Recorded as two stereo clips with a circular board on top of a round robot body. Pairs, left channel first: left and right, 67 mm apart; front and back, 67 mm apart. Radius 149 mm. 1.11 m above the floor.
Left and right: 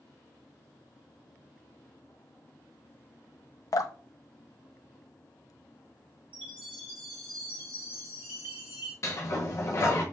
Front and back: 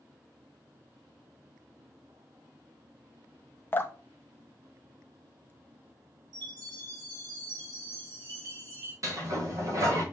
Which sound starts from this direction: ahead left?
Dripping, at 3.7 s.